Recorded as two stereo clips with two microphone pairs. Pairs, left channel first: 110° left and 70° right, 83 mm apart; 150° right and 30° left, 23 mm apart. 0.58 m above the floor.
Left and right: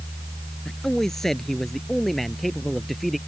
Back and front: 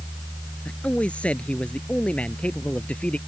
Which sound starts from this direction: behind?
A man speaking, at 0.7 s.